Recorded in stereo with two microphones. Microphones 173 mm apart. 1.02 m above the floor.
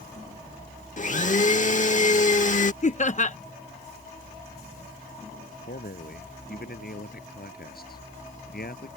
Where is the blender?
45° left (ahead or behind).